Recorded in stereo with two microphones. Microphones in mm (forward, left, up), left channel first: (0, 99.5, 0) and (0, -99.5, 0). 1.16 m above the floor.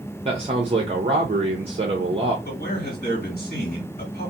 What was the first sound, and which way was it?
A man speaking, 30° right (ahead or behind).